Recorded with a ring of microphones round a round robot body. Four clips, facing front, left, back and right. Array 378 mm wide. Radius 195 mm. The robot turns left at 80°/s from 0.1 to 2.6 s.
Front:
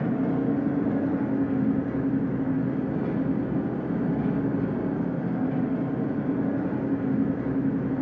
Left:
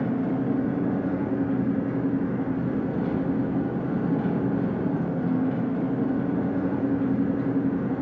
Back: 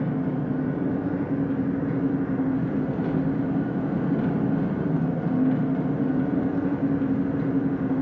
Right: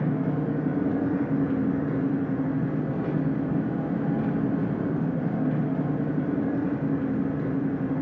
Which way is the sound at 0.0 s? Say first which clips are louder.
Left 1 dB, front 2 dB; 20° left.